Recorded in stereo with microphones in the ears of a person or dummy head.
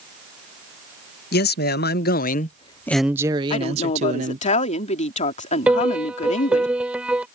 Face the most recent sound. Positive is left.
turn(degrees=-5)  # may be behind; listen again after turning